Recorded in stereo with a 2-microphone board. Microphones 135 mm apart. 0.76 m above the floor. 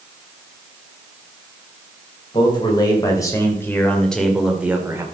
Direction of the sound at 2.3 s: 35° left (ahead or behind).